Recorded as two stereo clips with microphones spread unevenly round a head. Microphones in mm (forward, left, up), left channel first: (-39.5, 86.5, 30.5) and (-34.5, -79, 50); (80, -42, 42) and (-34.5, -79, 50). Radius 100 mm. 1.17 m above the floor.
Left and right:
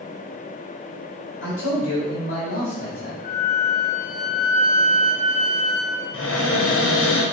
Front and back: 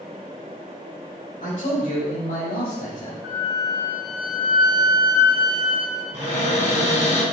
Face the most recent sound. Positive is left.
turn(degrees=75)